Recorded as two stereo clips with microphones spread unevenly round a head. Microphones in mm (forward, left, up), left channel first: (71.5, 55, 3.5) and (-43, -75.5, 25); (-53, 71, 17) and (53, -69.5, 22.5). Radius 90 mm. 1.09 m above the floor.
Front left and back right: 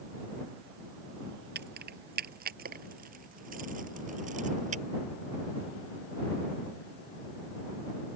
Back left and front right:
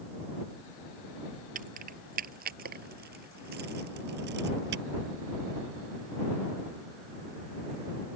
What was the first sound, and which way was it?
Keys jangling, 100° right.